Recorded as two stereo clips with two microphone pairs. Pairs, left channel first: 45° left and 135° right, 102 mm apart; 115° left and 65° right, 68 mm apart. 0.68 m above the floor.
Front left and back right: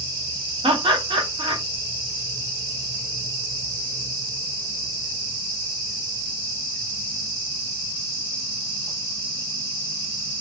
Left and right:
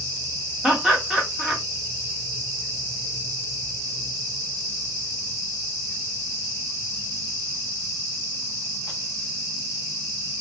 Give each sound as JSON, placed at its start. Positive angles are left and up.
{"t": 0.6, "sound": "laughter", "azimuth_deg": -145, "distance_m": 1.0}